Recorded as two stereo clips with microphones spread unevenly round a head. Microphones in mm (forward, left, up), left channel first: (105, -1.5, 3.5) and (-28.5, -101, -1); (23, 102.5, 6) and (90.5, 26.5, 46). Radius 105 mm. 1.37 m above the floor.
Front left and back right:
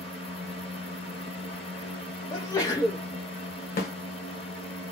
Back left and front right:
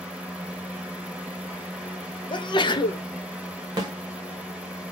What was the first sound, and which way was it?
A fan, 60° left.